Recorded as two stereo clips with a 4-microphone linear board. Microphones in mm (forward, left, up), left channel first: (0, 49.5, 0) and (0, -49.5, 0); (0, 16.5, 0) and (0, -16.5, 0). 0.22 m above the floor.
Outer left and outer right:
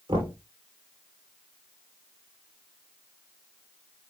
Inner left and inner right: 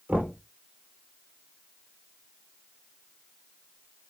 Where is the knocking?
60° right (ahead or behind), 4 m.